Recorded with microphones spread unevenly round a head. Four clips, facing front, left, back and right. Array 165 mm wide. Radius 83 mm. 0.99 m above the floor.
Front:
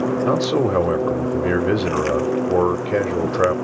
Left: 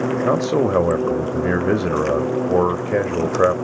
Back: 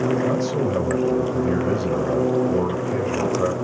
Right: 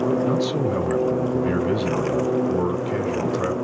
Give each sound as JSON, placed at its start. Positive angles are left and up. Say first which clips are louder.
{"t": 0.2, "sound": "a man speaking", "louder": "left 4 dB, front 3 dB", "azimuth_deg": 60, "distance_m": 1.1}